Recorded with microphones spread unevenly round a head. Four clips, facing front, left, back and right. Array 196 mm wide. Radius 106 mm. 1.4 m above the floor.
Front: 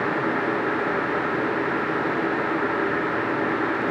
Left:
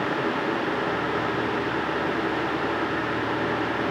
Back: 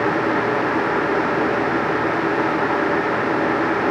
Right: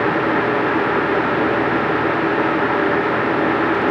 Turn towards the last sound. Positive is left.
No sound to turn to.